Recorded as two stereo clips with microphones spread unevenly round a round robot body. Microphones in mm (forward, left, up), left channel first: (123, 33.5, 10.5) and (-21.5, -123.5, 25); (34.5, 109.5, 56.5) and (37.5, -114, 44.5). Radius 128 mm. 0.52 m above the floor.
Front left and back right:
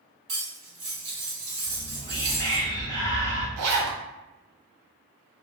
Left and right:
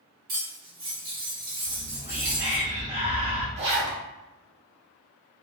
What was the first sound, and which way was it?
Cutlery clinking, 145° right.